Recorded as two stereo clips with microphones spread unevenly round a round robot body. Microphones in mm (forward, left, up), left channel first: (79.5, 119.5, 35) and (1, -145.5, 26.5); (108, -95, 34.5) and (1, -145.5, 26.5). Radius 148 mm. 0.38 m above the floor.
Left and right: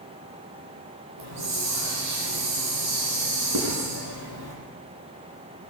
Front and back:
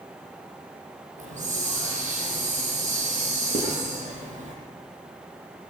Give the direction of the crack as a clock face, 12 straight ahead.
No crack in this recording.